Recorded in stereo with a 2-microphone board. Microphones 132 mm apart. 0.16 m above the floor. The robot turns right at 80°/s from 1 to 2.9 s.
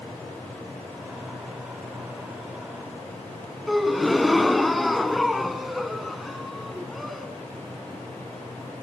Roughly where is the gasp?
Centre.